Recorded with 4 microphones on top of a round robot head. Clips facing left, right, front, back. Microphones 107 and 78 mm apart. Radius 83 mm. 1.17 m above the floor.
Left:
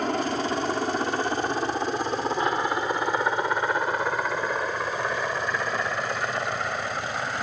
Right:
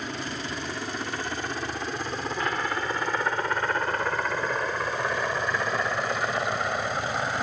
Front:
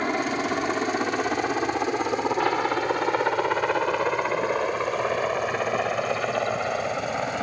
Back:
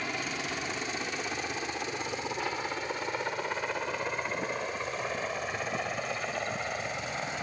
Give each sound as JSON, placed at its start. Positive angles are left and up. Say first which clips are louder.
{"t": 0.0, "sound": "a helicopter", "louder": "left 8 dB, front 10 dB", "azimuth_deg": 40}